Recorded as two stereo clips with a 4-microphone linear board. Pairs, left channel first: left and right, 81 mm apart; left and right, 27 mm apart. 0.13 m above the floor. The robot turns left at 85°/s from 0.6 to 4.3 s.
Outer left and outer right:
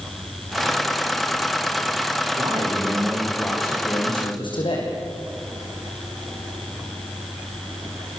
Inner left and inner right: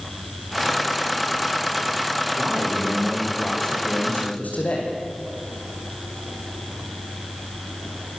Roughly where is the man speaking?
Right.